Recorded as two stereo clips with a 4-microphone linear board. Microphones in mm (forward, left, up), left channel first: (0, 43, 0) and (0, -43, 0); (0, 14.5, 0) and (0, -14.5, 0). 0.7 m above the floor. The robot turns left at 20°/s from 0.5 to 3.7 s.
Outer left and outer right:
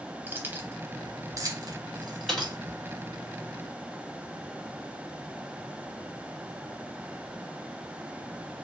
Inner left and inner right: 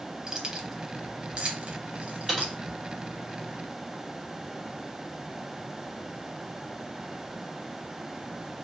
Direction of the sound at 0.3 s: 25° right (ahead or behind).